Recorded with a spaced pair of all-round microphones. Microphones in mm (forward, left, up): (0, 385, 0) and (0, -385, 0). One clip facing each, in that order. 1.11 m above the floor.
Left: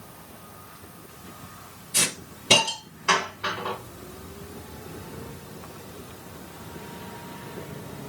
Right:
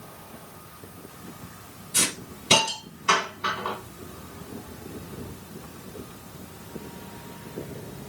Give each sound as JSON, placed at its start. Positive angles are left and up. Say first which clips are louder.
{"t": 1.9, "sound": "a hiss", "louder": "right 1 dB", "side_deg": 70, "distance_m": 2.5}